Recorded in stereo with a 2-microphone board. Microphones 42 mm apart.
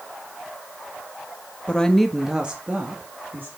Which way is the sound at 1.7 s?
25° left (ahead or behind).